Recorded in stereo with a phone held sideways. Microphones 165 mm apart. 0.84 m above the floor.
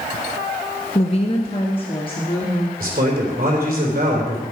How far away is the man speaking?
About 3 m.